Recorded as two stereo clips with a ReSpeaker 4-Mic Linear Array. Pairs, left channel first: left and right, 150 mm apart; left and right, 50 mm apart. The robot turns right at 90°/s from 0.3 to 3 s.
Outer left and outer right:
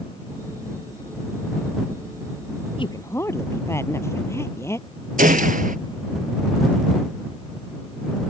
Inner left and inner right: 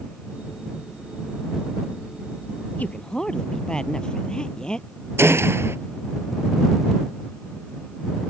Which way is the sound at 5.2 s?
65° right (ahead or behind).